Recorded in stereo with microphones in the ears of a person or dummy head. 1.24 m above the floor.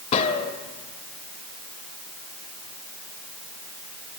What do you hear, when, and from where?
0.1 s a gunshot: 35° left (ahead or behind), 2.5 m